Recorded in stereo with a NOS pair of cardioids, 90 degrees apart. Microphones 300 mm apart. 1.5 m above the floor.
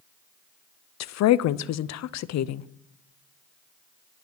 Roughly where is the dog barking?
No dog barking in this recording.